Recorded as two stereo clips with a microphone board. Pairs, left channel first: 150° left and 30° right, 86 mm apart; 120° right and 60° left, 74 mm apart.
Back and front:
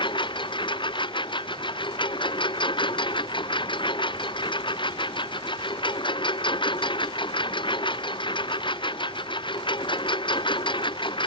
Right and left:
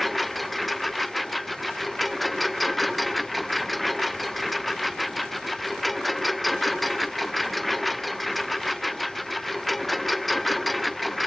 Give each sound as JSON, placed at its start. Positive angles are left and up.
{"t": 0.0, "sound": "a lawn mower", "azimuth_deg": 150}